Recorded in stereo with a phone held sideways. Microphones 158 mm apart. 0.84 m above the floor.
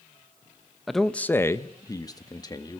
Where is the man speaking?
Centre (ahead or behind), 0.8 m; by 2.8 s 25° left (ahead or behind), 1.8 m.